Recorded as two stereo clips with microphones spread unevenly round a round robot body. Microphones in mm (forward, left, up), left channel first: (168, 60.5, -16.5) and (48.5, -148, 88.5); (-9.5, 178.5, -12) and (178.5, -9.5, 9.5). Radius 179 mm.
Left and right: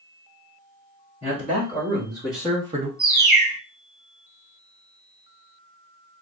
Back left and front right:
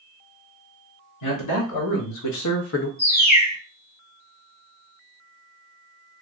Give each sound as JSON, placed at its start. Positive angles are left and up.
{"t": 1.2, "sound": "a man speaking", "azimuth_deg": 135, "distance_m": 2.5}
{"t": 3.0, "sound": "a bird", "azimuth_deg": 140, "distance_m": 1.9}